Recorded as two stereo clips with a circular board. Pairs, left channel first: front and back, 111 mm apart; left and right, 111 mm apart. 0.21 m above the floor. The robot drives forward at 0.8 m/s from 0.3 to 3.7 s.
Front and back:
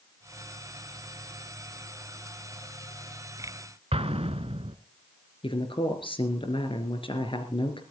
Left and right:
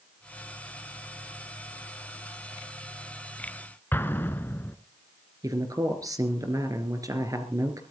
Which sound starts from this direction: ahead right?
A man speaking, at 5.4 s.